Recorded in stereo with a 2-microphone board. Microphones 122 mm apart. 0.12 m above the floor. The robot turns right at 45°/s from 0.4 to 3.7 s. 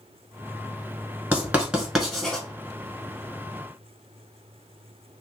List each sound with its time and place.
1.3 s writing: 15° right (ahead or behind), 1.1 m; by 2.5 s 10° left (ahead or behind), 1.1 m